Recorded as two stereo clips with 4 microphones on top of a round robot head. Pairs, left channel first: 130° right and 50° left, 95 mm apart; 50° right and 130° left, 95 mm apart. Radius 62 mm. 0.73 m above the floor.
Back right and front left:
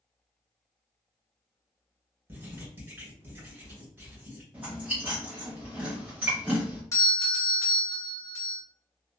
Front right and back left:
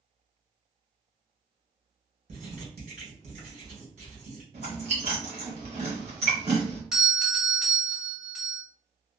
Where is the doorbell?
150° right, 1.0 m.